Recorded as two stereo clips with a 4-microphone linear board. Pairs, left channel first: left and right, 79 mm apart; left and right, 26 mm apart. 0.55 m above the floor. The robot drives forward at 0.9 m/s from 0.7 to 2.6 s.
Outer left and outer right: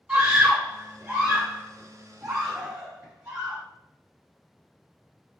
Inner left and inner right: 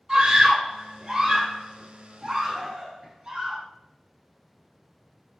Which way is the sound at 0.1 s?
20° right (ahead or behind).